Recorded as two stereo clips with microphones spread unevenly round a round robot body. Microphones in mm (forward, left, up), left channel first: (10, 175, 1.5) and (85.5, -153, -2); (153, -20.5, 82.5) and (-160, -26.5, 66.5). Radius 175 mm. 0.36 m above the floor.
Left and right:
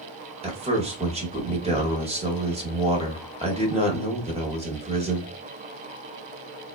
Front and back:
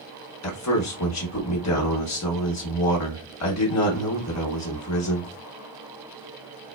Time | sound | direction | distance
0.4 | a man speaking | 10° right | 1.1 m